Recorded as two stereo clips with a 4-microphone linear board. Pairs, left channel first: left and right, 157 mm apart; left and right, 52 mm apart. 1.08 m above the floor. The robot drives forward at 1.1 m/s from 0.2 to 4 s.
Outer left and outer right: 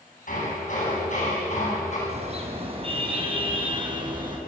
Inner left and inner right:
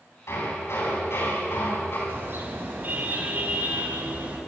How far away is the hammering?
About 8.5 m.